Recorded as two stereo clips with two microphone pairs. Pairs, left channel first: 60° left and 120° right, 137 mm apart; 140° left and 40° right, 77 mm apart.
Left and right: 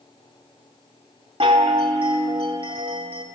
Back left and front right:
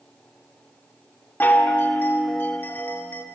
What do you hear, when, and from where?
1.4 s a chime: 160° right, 2 m